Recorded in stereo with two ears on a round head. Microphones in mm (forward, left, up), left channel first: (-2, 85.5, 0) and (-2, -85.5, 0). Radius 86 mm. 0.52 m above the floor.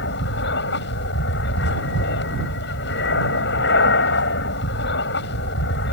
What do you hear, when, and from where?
0.0 s an aircraft: 60° left (ahead or behind)